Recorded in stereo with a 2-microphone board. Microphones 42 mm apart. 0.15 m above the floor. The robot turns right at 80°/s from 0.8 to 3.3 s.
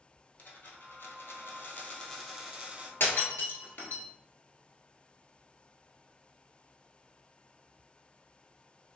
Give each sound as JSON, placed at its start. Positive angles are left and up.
{"t": 0.4, "sound": "a dropped coin", "azimuth_deg": 60, "distance_m": 1.1}
{"t": 3.0, "sound": "breaking glass", "side_deg": 60, "distance_m": 0.9}